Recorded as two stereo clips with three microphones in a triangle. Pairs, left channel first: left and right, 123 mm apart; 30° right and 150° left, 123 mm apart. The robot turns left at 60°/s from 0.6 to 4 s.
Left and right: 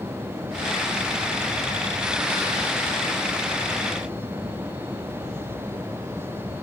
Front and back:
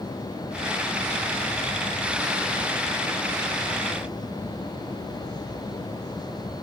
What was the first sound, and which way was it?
Only background noise.